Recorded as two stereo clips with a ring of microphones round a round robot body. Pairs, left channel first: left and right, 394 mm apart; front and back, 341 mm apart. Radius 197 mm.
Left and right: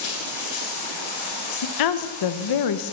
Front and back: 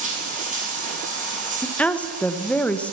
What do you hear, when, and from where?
0.0 s running water: 110° left, 3 m
1.6 s a woman speaking: 85° left, 0.9 m